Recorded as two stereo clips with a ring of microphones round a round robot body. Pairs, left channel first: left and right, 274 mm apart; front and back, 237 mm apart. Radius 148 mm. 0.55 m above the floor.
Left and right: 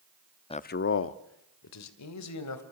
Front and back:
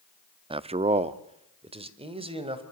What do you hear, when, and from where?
0.5 s a man speaking: 140° left, 0.7 m; by 2.6 s 115° left, 3 m